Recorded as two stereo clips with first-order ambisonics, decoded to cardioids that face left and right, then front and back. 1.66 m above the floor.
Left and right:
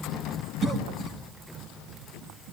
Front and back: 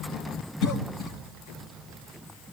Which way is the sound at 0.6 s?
25° right.